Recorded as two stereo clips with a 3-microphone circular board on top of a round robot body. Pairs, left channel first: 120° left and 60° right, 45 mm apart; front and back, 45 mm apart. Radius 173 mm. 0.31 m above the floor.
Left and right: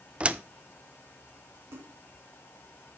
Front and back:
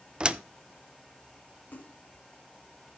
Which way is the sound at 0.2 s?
120° right.